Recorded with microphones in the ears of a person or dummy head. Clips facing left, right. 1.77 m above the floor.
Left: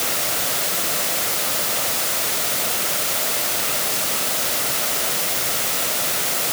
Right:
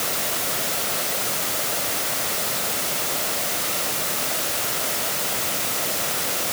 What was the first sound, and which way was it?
Only background noise.